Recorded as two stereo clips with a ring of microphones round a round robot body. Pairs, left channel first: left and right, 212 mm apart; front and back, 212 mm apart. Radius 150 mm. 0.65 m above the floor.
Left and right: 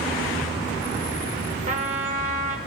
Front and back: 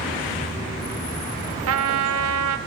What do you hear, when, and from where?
1.7 s a trumpet: 155° right, 0.7 m